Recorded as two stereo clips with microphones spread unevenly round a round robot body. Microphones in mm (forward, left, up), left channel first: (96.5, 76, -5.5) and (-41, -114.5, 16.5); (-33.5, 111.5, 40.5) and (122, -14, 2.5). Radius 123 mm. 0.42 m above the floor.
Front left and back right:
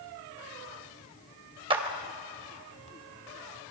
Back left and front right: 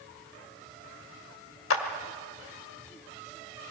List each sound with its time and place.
1.7 s a clap: 165° left, 1.7 m